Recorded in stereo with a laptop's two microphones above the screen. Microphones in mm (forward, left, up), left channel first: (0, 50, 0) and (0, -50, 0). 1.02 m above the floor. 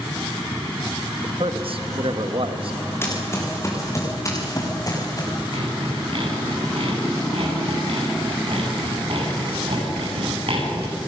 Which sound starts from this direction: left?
Running footsteps, at 3.0 s.